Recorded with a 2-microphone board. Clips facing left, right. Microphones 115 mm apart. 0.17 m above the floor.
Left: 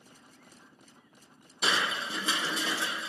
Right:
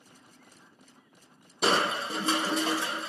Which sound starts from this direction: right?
Crushing, at 1.6 s.